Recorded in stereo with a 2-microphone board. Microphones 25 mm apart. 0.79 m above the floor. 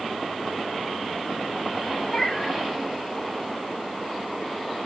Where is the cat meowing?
30° left (ahead or behind), 2.5 m.